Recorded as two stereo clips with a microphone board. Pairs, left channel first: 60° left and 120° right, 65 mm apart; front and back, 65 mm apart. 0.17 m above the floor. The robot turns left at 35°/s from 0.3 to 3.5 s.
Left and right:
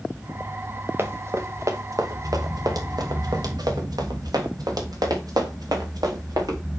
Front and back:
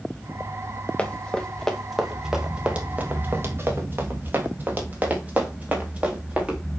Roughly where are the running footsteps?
Right.